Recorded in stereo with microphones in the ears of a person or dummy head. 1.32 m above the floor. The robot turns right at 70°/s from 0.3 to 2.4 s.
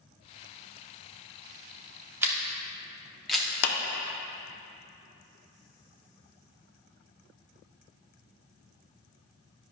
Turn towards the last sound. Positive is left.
turn(degrees=65)  # may be behind; listen again after turning